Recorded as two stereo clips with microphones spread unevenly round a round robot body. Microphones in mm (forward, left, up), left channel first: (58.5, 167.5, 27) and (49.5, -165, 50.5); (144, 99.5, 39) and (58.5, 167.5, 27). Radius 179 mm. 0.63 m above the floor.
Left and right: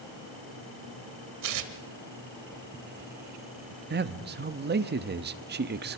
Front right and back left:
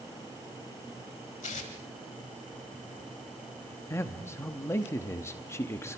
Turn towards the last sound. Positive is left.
turn(degrees=-85)